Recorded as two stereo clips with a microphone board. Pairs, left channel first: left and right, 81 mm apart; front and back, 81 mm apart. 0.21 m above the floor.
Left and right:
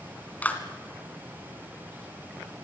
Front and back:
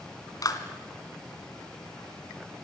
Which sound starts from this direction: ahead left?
A clap, at 0.4 s.